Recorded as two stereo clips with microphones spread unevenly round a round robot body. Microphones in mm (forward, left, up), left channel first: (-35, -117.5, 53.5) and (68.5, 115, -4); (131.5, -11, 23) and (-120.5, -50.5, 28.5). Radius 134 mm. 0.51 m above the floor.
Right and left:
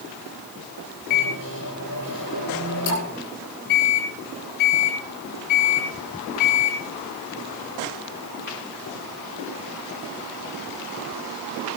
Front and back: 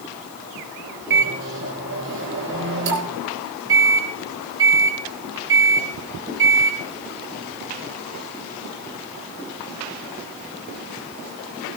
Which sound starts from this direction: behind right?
A microwave, at 1.1 s.